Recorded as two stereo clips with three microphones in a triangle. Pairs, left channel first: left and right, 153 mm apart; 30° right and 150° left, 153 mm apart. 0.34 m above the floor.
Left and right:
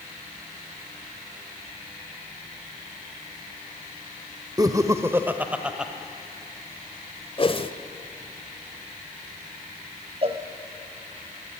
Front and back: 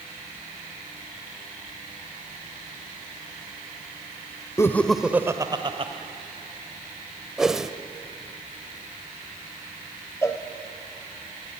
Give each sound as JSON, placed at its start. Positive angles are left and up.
{"t": 4.6, "sound": "laughter", "azimuth_deg": -70, "distance_m": 1.2}
{"t": 7.4, "sound": "a whoosh", "azimuth_deg": 65, "distance_m": 1.1}
{"t": 10.2, "sound": "a cowbell", "azimuth_deg": -95, "distance_m": 1.9}